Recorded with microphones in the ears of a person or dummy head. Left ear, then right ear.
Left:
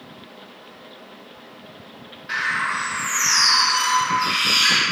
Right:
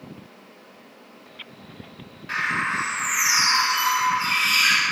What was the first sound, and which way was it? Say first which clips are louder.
A bird: left 2 dB; 5° right (ahead or behind).